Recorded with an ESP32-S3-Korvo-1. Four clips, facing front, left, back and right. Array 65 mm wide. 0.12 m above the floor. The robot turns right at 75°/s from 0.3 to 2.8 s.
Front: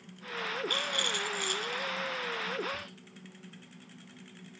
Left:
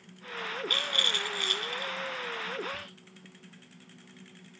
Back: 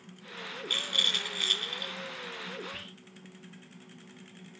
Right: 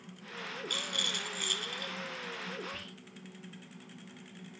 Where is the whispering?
Straight behind, 1.4 m; by 3.0 s 175° right, 1.4 m.